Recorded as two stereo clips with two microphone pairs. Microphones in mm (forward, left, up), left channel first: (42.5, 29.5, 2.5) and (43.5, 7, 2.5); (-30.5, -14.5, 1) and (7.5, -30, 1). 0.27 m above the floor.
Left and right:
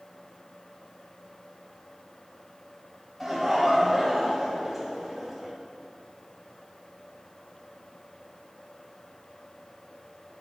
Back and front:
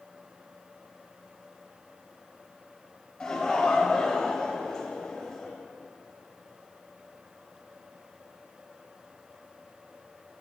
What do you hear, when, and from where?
3.2 s laughter: 155° right, 1.1 m